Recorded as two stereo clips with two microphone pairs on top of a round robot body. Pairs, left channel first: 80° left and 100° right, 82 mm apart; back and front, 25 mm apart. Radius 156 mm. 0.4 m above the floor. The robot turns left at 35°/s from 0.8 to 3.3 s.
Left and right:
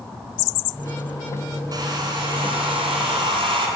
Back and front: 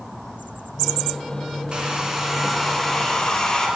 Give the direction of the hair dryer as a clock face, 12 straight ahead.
2 o'clock.